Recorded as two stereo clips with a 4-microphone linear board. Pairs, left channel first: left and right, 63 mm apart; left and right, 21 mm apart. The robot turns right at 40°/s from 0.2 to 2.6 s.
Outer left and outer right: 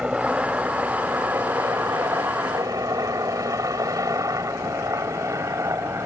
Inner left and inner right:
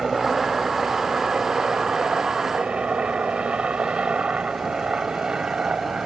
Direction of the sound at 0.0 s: 15° right (ahead or behind).